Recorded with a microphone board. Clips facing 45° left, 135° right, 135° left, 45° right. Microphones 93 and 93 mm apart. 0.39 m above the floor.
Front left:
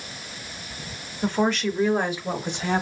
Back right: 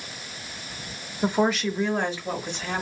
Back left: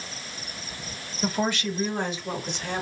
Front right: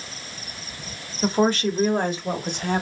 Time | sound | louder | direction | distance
1.2 | a woman speaking | even, front right 6 dB | 75° right | 0.8 m